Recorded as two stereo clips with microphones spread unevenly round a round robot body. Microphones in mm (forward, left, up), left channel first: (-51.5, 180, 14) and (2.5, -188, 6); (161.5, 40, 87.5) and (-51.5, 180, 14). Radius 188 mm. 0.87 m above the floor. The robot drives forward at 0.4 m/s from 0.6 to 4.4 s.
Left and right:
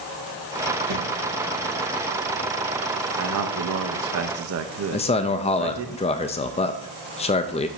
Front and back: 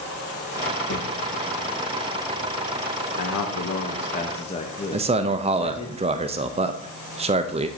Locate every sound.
0.9 s a thud: 50° right, 5 m
3.2 s a man speaking: 55° right, 0.8 m; by 5.9 s 110° right, 0.7 m
4.9 s a man speaking: 165° left, 0.5 m